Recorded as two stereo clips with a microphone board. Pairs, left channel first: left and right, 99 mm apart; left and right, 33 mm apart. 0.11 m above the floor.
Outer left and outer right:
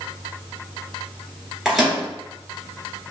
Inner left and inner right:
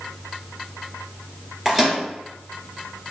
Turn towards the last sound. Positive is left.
turn(degrees=-5)  # may be behind; listen again after turning